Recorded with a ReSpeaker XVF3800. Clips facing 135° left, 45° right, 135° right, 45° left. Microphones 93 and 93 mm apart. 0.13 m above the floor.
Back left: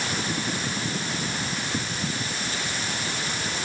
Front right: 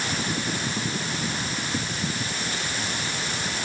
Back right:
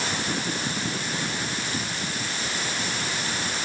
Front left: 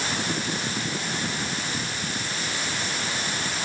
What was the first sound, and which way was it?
Only background noise.